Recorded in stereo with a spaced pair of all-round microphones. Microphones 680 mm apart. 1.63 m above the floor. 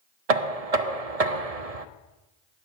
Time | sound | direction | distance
0.3 | knocking | 65° right (ahead or behind) | 0.6 m